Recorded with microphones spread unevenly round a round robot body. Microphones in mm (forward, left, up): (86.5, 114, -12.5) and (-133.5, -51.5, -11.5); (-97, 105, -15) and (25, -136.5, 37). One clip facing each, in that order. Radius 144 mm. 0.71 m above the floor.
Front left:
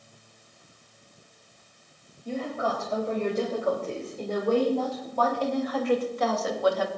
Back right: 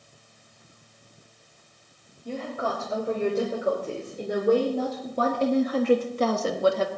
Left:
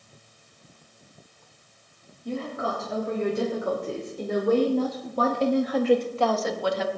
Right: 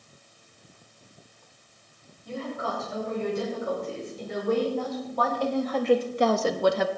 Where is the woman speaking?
135° left, 4.5 m; by 6.9 s 85° right, 1.3 m.